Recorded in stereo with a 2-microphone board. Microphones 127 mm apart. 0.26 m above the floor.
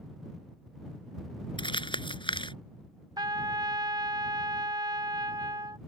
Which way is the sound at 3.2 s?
35° right (ahead or behind).